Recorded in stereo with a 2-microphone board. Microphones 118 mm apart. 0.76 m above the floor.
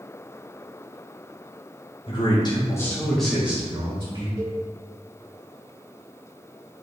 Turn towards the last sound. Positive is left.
turn(degrees=-30)  # may be behind; listen again after turning